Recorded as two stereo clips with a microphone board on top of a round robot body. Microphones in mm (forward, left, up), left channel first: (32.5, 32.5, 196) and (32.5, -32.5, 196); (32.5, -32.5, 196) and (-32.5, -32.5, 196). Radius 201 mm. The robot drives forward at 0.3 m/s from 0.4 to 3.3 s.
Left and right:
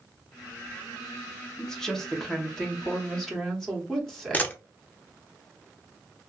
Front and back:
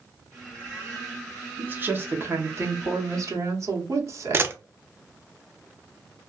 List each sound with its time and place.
1.6 s a woman speaking: 165° left, 0.9 m; by 4.5 s 175° left, 1.2 m
4.3 s a camera shutter: 145° left, 0.7 m